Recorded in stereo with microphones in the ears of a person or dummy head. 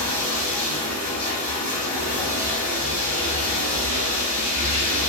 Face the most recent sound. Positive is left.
turn(degrees=10)  # may be behind; listen again after turning